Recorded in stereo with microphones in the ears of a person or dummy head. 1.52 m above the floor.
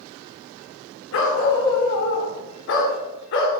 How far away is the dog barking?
About 1.9 m.